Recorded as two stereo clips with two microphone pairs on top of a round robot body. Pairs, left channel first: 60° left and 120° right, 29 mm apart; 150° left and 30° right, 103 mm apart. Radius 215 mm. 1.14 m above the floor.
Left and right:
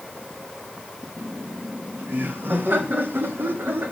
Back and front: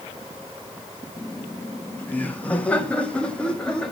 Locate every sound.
1.2 s laughter: 140° right, 2 m; by 3.9 s 125° right, 3.5 m